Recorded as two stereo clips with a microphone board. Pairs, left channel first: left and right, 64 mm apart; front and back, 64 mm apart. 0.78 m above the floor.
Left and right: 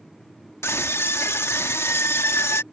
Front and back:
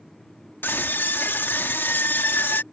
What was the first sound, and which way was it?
A scream, 50° left.